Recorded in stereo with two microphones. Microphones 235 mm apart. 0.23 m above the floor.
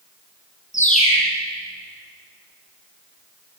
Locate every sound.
0.7 s a bird: 30° left (ahead or behind), 4 m